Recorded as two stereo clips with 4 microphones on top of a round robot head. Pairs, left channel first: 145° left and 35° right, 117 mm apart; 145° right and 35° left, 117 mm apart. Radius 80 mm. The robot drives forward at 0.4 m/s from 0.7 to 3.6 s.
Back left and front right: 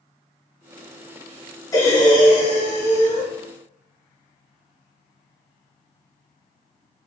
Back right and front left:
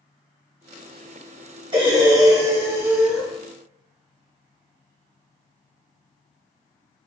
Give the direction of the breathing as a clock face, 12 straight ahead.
9 o'clock.